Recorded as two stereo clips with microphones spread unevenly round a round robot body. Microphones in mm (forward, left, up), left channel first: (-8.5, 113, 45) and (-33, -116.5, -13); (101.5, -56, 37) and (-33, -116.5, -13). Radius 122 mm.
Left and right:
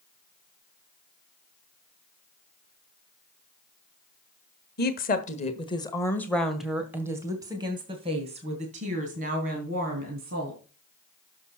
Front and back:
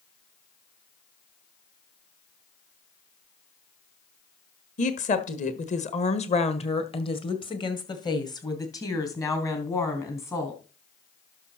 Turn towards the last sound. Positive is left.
turn(degrees=-55)